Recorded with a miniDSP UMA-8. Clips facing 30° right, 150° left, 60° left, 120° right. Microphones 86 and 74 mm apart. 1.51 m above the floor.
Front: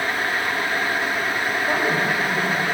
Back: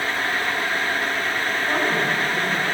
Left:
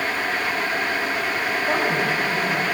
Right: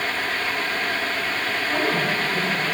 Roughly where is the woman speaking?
Ahead left.